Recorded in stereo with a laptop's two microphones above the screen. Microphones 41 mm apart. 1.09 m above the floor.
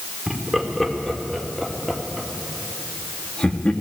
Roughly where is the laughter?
Centre.